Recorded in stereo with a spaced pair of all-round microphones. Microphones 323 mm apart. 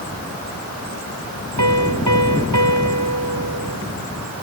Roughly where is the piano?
Right.